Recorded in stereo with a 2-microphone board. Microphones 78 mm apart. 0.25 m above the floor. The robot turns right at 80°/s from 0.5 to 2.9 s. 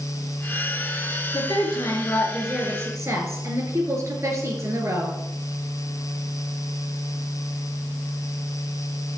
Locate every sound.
1.3 s a woman speaking: 95° left, 3.5 m; by 5.2 s 140° right, 3.5 m